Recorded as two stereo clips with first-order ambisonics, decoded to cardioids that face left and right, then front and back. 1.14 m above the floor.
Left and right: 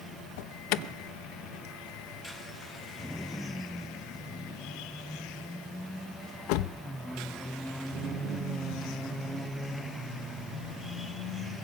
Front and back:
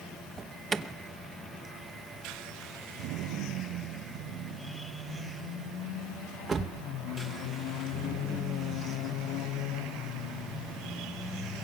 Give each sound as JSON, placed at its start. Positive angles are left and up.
{"t": 0.4, "sound": "an alarm", "azimuth_deg": 105, "distance_m": 0.8}